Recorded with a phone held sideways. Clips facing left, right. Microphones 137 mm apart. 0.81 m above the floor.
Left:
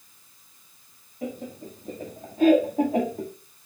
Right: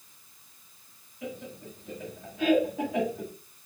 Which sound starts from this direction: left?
Laughter, at 1.2 s.